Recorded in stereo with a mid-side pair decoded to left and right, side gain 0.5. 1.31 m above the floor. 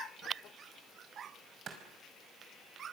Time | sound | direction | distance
1.7 | a clap | 55° right | 5 m